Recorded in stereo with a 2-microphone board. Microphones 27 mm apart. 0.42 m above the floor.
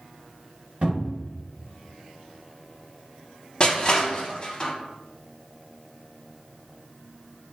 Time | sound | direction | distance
0.8 | a cupboard door | 55° right (ahead or behind) | 1.2 m
3.6 | crushing | 35° left (ahead or behind) | 0.6 m